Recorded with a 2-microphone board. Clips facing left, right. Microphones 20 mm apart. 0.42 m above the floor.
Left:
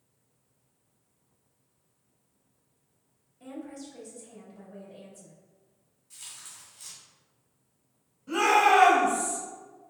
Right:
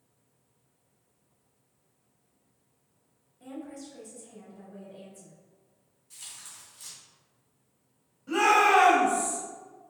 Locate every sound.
3.4 s a woman speaking: 10° left (ahead or behind), 1.5 m
6.1 s tearing paper: centre (ahead or behind), 1.9 m
8.3 s a shout: 15° right (ahead or behind), 1.8 m